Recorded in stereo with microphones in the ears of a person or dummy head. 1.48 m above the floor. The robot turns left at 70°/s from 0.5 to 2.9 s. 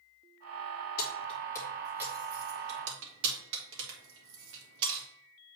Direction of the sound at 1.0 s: 60° left (ahead or behind).